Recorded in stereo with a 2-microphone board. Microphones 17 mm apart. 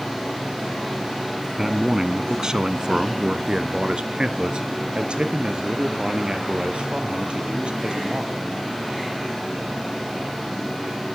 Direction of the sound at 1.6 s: 20° right (ahead or behind).